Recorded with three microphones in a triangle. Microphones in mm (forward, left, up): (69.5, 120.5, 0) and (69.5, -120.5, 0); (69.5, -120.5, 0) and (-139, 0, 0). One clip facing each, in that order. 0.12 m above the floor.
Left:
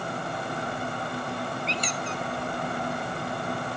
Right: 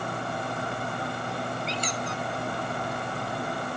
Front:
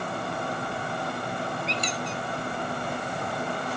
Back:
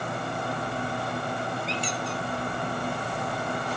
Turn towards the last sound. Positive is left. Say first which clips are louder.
# even, even
turn(degrees=-40)